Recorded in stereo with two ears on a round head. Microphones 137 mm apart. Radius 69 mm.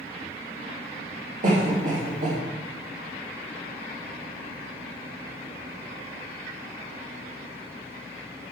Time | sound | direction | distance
1.4 | a cough | 55° right (ahead or behind) | 2.5 m